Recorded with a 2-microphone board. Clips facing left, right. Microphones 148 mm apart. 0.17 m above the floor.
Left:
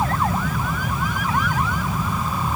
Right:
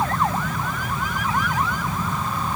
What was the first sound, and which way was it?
Only background noise.